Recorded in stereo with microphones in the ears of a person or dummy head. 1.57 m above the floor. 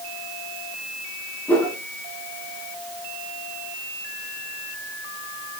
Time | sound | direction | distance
1.5 | a whoosh | 10° left (ahead or behind) | 2 m